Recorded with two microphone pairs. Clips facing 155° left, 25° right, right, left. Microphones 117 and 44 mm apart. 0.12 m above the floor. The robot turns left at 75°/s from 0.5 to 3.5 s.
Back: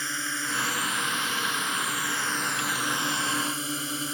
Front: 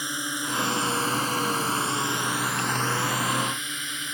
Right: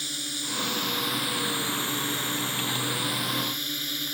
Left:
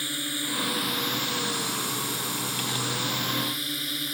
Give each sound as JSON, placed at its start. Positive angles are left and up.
{"t": 0.0, "sound": "a drone", "azimuth_deg": 40}